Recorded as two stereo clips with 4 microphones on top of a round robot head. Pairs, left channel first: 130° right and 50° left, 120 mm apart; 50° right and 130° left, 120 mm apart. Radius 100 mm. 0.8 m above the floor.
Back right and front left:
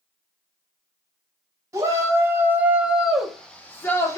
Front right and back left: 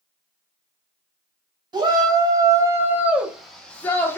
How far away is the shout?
About 1.3 m.